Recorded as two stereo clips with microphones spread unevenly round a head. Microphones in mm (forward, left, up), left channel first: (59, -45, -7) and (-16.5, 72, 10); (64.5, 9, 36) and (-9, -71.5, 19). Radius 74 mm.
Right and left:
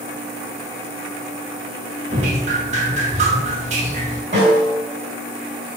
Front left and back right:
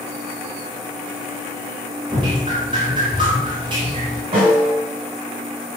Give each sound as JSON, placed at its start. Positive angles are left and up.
{"t": 2.1, "sound": "dripping", "azimuth_deg": 165, "distance_m": 1.5}
{"t": 4.3, "sound": "a snare drum", "azimuth_deg": 175, "distance_m": 4.0}